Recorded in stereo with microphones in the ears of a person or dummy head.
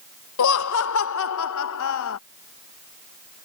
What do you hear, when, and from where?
0.4 s laughter: 70° left (ahead or behind)